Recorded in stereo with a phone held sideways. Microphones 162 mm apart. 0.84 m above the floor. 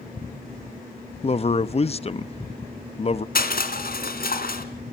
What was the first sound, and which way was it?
A man speaking, 40° left (ahead or behind).